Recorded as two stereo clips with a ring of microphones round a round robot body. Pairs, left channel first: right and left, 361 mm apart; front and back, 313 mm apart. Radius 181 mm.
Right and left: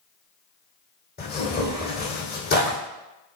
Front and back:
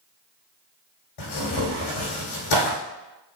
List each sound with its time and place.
1.2 s tearing paper: 25° right, 4 m